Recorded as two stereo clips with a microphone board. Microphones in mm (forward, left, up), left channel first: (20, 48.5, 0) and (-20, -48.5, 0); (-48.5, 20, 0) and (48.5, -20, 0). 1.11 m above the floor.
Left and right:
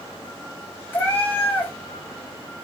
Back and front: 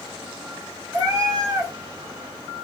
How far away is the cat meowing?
About 1.2 m.